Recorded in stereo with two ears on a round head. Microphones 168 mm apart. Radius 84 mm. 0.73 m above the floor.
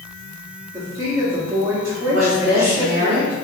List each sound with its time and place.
0.7 s a woman speaking: 15° right (ahead or behind), 1.3 m
2.1 s a woman speaking: 50° right (ahead or behind), 1.7 m